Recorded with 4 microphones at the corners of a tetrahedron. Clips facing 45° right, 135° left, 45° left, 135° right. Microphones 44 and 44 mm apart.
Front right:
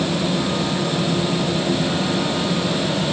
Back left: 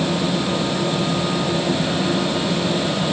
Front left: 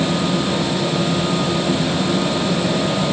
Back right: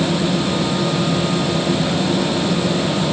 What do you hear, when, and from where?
Only background noise.